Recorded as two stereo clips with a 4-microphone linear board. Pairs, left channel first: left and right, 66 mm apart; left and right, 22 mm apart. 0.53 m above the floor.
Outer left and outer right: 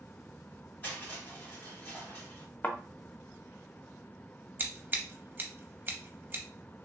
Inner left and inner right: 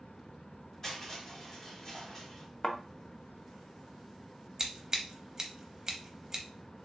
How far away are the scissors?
About 0.6 m.